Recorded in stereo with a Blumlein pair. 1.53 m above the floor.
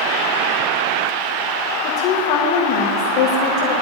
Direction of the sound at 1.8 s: 45° left.